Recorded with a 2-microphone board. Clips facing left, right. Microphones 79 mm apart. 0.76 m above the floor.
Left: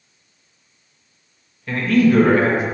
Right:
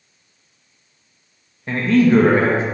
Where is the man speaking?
30° right (ahead or behind), 0.5 m.